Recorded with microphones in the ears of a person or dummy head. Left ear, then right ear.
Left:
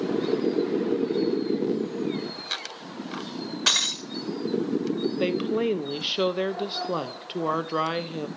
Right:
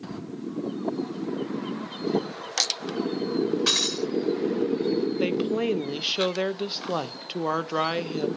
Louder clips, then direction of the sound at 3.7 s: Left 4 dB; 15° left (ahead or behind).